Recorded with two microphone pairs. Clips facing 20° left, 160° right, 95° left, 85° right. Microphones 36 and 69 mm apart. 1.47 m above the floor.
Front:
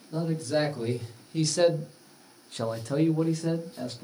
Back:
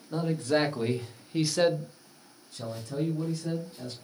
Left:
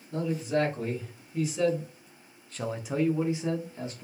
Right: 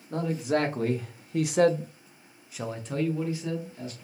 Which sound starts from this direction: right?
A man speaking, at 0.1 s.